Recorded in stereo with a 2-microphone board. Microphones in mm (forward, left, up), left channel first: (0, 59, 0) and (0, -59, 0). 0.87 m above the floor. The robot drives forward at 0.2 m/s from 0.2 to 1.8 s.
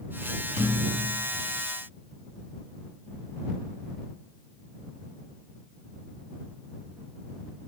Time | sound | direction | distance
0.6 | a thud | 75° right (ahead or behind) | 3.5 m